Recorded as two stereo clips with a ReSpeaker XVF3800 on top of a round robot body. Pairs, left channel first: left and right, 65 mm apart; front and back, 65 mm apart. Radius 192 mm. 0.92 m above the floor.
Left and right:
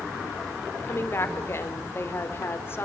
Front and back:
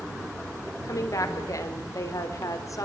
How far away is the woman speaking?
About 4 m.